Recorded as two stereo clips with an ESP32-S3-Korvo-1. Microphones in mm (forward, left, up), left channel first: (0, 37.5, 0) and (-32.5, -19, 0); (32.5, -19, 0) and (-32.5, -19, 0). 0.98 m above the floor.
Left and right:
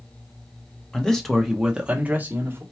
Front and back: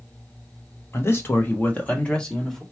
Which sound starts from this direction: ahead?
A man speaking, at 0.9 s.